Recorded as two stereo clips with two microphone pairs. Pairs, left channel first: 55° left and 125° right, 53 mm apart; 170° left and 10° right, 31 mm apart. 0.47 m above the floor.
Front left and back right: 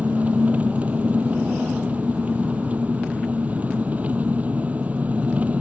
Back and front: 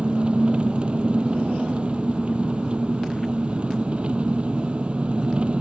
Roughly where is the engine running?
Ahead right.